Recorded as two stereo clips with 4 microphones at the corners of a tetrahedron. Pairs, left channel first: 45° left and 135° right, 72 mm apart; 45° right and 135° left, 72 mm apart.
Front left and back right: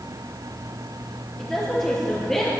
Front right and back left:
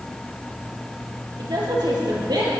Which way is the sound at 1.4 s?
130° left.